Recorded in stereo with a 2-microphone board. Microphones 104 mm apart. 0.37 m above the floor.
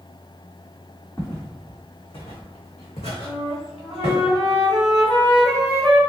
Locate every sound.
1.2 s footsteps: 35° left (ahead or behind), 1.1 m; by 4.2 s 65° left (ahead or behind), 1.6 m
3.2 s a flute: 5° right (ahead or behind), 1.1 m